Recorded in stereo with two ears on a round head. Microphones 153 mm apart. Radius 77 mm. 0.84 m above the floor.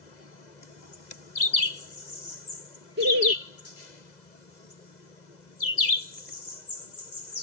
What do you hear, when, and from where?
3.0 s laughter: 65° right (ahead or behind)